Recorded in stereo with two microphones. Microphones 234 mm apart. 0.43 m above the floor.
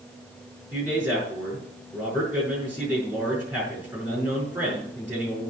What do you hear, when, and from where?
0.7 s a man speaking: 5° right (ahead or behind), 6 m